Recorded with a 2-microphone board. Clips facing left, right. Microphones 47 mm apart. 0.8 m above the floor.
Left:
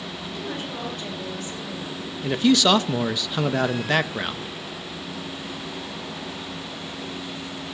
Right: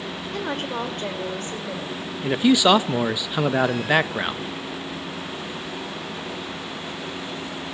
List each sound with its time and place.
0.3 s a woman speaking: 55° right (ahead or behind), 3.5 m; by 2.0 s 40° right (ahead or behind), 3.5 m
2.2 s a man speaking: 15° right (ahead or behind), 0.6 m